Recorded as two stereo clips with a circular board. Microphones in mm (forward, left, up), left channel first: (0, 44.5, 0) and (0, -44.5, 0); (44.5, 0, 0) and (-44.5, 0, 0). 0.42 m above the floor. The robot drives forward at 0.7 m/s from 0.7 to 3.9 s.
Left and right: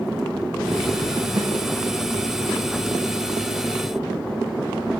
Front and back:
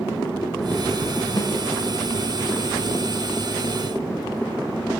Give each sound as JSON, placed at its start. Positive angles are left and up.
{"t": 1.4, "sound": "a snare drum", "azimuth_deg": -60, "distance_m": 3.0}